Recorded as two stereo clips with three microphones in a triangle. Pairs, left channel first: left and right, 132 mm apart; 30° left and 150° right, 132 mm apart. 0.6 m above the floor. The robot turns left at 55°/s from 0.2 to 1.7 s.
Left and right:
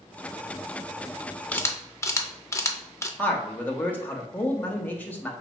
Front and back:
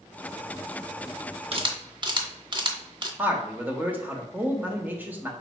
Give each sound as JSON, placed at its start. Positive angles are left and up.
{"t": 1.5, "sound": "a camera shutter", "azimuth_deg": 170, "distance_m": 0.6}
{"t": 3.2, "sound": "a man speaking", "azimuth_deg": 150, "distance_m": 0.8}